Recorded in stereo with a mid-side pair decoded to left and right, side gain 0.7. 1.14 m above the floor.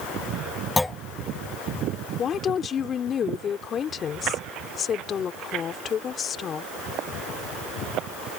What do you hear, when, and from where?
0.8 s a clunk: 10° left
2.2 s a woman speaking: 35° left